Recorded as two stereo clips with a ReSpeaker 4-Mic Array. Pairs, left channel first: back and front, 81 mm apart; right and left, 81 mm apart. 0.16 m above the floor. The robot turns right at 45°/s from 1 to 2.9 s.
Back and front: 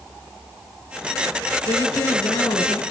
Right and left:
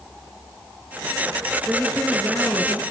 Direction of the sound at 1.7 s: 170° left.